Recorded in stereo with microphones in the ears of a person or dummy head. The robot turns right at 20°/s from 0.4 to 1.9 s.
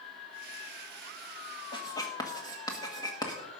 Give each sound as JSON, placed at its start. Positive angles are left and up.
{"t": 1.7, "sound": "writing", "side_deg": 25, "distance_m": 1.7}